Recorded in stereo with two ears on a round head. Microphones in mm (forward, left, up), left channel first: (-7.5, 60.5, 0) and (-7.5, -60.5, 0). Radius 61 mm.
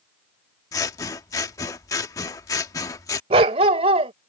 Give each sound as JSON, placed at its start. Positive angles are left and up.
{"t": 0.7, "sound": "scissors", "side_deg": 25}
{"t": 3.3, "sound": "a dog barking", "side_deg": -45}